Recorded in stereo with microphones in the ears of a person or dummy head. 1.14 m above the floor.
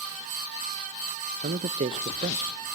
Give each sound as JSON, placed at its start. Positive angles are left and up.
{"t": 1.4, "sound": "a man speaking", "side_deg": -35, "distance_m": 0.5}